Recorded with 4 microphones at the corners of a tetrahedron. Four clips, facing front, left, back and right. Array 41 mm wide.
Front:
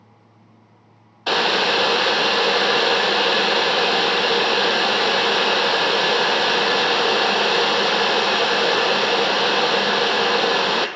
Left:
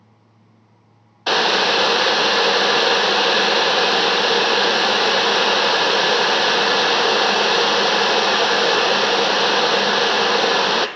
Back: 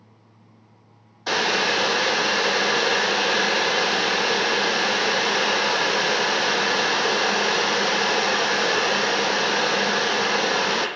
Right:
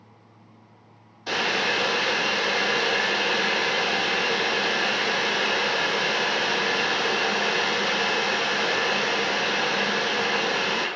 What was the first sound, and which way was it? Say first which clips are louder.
Boiling: left 7 dB, front 3 dB; 60° left.